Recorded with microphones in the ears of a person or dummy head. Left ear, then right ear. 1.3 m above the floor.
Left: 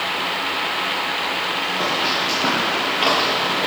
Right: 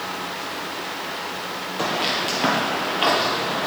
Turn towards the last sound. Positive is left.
turn(degrees=20)  # may be behind; listen again after turning